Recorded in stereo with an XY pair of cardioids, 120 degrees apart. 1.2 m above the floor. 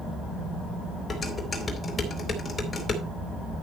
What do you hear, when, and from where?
1.1 s dishes clattering: 25° left, 3.5 m